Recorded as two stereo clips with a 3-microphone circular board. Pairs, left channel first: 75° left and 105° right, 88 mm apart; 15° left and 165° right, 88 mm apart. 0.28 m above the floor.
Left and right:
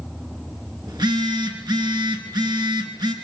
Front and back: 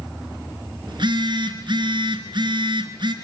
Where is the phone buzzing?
140° right, 2.5 m.